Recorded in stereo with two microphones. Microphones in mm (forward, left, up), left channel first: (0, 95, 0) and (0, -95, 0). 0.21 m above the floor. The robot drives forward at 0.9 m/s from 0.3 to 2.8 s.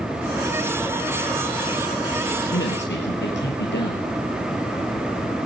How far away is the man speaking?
About 4.5 m.